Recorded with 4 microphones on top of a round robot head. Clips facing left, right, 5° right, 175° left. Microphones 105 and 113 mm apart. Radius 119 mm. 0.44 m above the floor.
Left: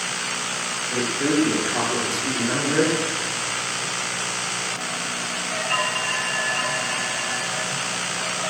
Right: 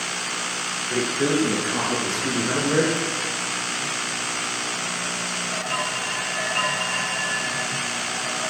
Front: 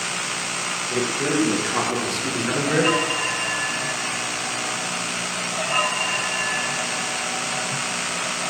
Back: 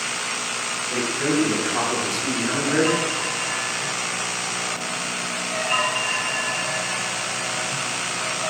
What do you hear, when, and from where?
0.9 s a man speaking: 75° right, 7.5 m; by 3.0 s 55° right, 7 m